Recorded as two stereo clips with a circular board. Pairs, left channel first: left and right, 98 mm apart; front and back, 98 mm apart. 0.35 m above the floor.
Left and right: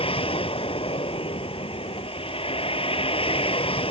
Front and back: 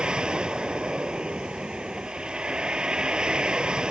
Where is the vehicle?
100° left.